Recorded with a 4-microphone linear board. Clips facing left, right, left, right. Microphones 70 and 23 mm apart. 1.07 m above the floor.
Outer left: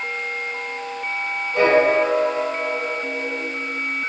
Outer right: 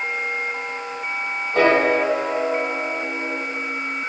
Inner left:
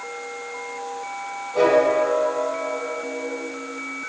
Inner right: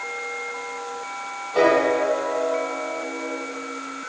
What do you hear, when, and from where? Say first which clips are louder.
1.5 s a piano: outer left 1 dB, inner left 1 dB; 60° right (ahead or behind), 3.5 m